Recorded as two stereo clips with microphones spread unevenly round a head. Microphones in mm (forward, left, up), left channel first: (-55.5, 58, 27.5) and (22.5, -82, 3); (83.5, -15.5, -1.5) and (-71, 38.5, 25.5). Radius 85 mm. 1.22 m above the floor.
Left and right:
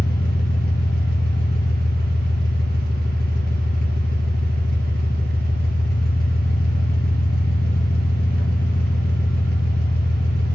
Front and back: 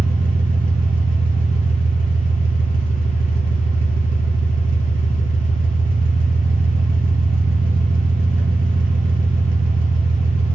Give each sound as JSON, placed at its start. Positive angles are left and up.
{"t": 0.0, "sound": "an engine running", "azimuth_deg": 145, "distance_m": 0.9}